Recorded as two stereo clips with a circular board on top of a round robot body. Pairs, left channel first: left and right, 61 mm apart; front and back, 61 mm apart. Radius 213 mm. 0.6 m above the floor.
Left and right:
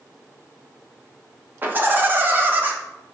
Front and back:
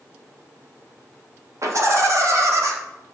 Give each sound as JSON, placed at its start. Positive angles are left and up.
{"t": 1.6, "sound": "laughter", "azimuth_deg": -150, "distance_m": 1.5}